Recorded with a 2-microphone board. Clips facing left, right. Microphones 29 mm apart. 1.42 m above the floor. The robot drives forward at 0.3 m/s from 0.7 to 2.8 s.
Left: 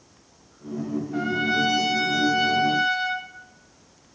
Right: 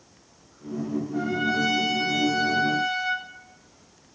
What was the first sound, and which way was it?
A trumpet, 55° left (ahead or behind).